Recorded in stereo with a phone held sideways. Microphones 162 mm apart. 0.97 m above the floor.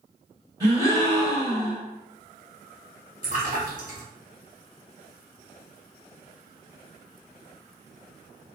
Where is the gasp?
25° right (ahead or behind), 1.4 m.